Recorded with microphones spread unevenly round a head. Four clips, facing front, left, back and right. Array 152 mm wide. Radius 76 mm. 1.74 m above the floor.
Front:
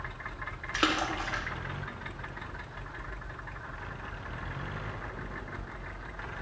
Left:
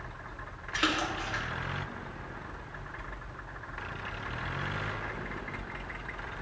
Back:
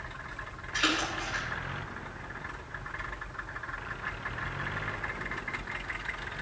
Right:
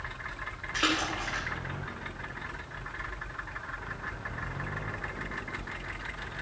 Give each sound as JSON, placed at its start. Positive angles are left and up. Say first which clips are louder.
{"t": 0.7, "sound": "a splash", "louder": "even, front 1 dB", "azimuth_deg": 0, "distance_m": 1.5}